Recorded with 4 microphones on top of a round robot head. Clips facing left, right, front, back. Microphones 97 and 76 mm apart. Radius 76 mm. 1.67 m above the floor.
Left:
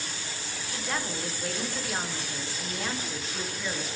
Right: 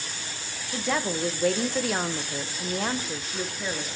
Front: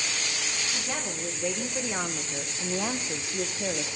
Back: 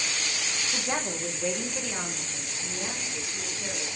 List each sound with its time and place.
0.7 s a woman speaking: 105° right, 1.5 m; by 3.9 s 10° right, 1.3 m